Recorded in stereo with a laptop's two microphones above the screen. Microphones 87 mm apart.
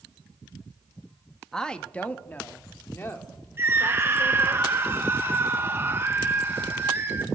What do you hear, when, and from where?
1.5 s a woman speaking: 5° left (ahead or behind), 1.1 m; by 4.6 s 35° left (ahead or behind), 3.5 m
3.6 s a scream: 25° right (ahead or behind), 1.3 m